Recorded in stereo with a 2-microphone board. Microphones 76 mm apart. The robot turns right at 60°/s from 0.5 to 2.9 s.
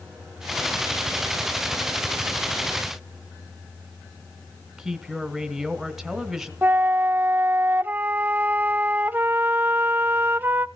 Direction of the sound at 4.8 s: 5° right (ahead or behind).